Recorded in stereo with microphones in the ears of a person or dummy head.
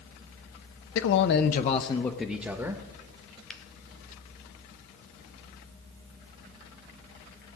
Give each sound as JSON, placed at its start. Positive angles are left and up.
{"t": 0.9, "sound": "a man speaking", "side_deg": 75, "distance_m": 1.1}
{"t": 3.5, "sound": "a finger snap", "side_deg": 5, "distance_m": 1.1}